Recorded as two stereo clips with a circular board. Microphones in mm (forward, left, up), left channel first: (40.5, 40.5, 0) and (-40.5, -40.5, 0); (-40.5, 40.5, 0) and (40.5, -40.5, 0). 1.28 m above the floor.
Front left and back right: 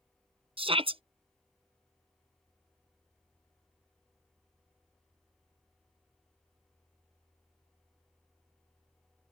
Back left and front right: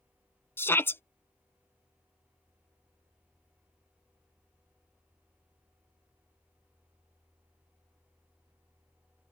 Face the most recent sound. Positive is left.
turn(degrees=-155)